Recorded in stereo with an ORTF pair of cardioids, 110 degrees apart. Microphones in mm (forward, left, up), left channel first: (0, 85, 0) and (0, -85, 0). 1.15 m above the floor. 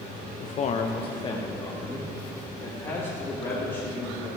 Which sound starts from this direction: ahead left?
A man speaking, at 0.4 s.